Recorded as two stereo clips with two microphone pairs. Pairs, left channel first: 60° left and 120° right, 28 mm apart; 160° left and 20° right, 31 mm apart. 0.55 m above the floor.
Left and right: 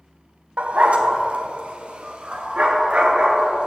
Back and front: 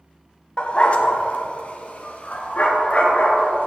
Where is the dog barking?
150° right, 0.9 m; by 3.7 s 165° right, 3 m.